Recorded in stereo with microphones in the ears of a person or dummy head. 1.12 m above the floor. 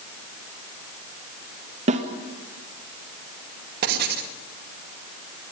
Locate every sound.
1.9 s a snare drum: 40° right (ahead or behind), 1.9 m
3.8 s writing: 50° right (ahead or behind), 2.0 m